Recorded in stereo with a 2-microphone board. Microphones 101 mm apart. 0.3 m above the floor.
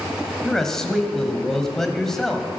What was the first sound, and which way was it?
A man speaking, 5° left (ahead or behind).